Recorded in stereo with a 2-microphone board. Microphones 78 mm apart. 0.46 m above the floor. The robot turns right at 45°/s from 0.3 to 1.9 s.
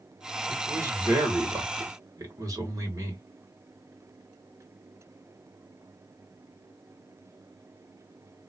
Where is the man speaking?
145° right, 2.0 m; by 3.2 s 85° right, 2.0 m.